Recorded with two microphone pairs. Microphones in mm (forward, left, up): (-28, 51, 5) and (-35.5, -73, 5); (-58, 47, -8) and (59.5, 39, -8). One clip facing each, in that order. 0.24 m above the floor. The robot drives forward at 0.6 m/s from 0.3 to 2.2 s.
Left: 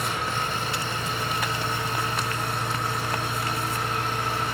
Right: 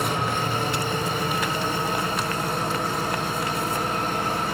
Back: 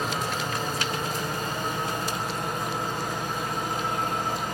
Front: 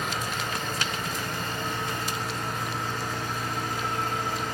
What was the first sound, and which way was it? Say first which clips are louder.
An engine running: right 4 dB, back 2 dB; 130° right.